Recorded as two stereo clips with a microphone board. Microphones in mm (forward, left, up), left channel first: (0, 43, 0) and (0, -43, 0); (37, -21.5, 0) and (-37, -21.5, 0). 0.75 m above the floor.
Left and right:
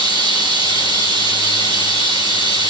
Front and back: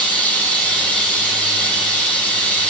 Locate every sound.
0.0 s running water: 70° right, 4 m